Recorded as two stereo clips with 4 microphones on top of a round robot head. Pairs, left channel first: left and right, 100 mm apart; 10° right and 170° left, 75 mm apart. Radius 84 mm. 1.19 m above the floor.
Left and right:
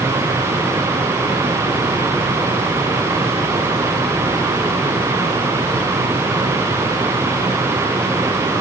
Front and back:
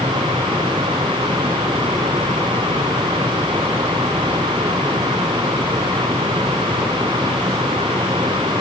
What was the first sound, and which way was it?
Only background noise.